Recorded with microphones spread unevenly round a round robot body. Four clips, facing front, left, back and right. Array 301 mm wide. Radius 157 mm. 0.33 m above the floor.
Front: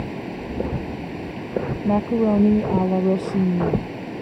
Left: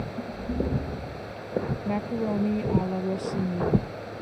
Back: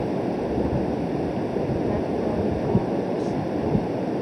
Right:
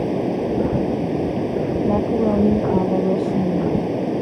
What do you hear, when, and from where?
0.0 s running water: 110° right
1.9 s a woman speaking: 20° right